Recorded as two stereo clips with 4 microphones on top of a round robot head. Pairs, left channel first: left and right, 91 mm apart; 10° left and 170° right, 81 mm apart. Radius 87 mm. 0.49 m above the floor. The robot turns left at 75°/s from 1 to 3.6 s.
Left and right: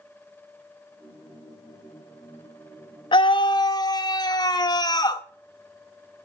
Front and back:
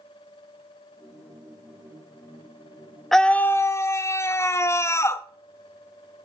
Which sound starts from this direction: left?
A scream, at 3.1 s.